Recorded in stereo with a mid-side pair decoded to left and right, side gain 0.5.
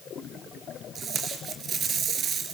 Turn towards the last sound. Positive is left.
turn(degrees=-55)